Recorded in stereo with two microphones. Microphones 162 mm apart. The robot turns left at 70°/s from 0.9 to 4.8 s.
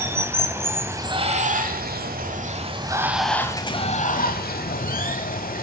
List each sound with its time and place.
0.0 s running water: 15° right, 1.0 m; by 5.6 s 70° left, 1.0 m